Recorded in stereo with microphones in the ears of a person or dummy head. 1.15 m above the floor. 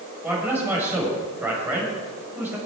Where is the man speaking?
10° right (ahead or behind), 5.5 m.